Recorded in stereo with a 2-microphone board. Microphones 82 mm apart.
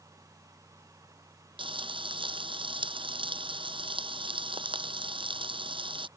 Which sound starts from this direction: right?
Frying, at 1.6 s.